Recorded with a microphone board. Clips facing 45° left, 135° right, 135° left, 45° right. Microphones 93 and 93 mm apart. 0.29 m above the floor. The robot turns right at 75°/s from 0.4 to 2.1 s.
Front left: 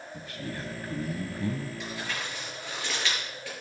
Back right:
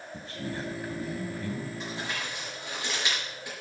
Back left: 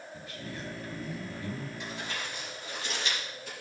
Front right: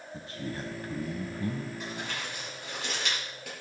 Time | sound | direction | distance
0.1 | a man speaking | 90° right | 1.8 m
1.8 | crumpling | 90° right | 6 m